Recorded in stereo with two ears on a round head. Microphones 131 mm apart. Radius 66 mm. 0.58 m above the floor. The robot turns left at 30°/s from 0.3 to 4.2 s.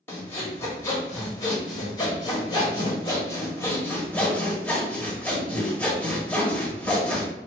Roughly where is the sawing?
Centre.